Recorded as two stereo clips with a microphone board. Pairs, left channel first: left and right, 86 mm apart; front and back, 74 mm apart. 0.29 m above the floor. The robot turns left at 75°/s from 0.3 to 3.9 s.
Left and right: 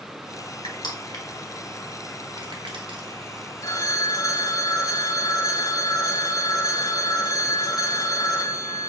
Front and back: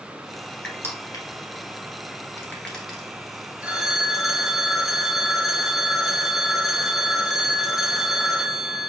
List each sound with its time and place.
0.6 s crushing: 75° left, 1.4 m; by 3.0 s 105° right, 1.4 m
3.6 s a phone ringing: 115° left, 0.7 m; by 8.9 s 95° left, 0.7 m